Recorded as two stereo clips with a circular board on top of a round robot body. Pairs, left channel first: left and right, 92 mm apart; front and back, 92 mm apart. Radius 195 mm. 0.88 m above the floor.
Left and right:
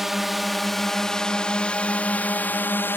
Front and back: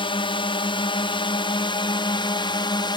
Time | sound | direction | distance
0.0 | a drone | 5° right | ?